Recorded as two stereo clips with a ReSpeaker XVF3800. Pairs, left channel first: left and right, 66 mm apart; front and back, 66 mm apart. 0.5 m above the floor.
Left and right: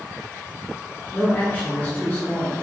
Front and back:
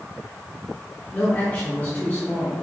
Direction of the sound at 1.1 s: 40° left.